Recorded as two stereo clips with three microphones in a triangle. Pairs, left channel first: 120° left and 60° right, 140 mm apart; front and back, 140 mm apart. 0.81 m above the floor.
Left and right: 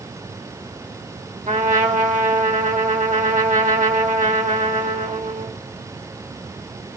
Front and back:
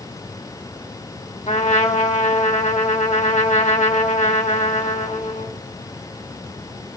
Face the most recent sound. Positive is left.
turn(degrees=-35)